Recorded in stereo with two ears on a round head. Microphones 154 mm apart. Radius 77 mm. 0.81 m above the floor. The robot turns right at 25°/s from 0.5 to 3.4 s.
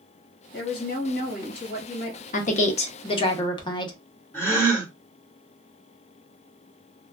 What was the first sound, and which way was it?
A woman speaking, 90° left.